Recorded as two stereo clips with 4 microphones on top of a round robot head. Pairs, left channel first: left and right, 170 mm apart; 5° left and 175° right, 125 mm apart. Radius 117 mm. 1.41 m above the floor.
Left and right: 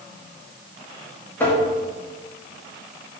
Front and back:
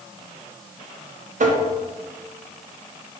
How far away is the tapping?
About 1.3 m.